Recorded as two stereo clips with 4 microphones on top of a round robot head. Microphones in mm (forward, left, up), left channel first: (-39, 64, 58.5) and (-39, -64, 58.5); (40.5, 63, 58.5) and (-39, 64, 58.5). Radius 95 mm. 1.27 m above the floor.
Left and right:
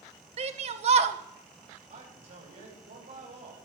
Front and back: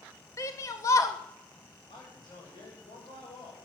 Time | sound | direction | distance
0.4 | a shout | 55° right | 1.4 m
1.9 | a man speaking | 45° right | 7.5 m